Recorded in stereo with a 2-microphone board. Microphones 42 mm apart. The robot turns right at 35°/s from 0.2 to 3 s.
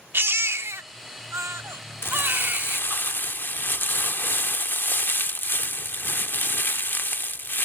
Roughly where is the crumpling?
Left.